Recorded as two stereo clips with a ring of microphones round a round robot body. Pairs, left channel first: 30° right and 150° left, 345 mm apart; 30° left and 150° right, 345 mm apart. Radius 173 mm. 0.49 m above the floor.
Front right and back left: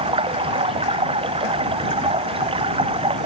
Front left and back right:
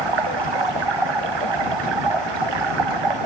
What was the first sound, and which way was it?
Running water, 135° right.